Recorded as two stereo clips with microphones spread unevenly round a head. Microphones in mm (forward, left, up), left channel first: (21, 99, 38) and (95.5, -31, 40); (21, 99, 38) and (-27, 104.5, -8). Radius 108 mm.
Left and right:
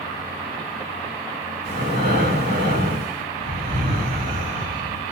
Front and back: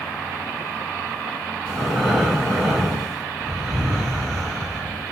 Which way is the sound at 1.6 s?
100° right.